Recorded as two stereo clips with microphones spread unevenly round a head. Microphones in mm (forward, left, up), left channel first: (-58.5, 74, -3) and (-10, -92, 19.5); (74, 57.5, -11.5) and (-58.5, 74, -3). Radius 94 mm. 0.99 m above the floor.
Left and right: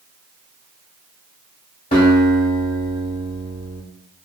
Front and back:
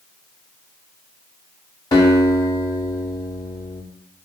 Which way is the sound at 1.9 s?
50° left.